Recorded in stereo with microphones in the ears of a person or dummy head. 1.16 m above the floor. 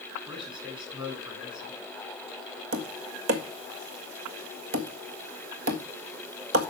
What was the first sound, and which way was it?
A man speaking, 25° right (ahead or behind).